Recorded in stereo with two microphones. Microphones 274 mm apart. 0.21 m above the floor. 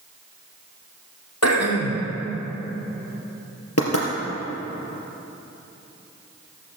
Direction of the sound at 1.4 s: 70° left (ahead or behind).